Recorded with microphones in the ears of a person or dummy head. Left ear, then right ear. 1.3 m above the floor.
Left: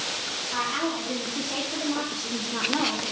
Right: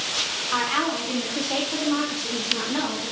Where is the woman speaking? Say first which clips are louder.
Right 4 dB; 50° right (ahead or behind), 1.0 m; by 3.1 s 40° left (ahead or behind), 0.9 m.